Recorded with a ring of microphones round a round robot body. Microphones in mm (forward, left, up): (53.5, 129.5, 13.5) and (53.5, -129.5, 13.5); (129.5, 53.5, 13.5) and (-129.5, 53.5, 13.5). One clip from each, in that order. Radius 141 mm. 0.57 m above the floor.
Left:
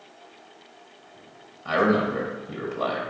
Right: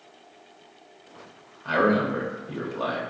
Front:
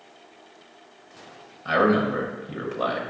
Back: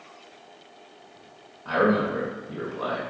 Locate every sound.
1.6 s a man speaking: 25° right, 1.0 m